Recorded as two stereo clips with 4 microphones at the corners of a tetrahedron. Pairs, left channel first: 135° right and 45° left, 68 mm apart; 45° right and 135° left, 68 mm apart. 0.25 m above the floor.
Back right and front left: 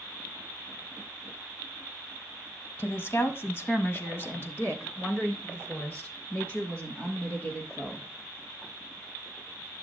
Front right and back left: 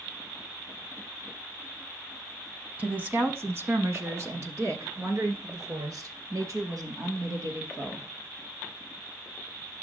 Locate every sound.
2.8 s a woman speaking: 170° right, 1.3 m; by 8.1 s 160° left, 4.5 m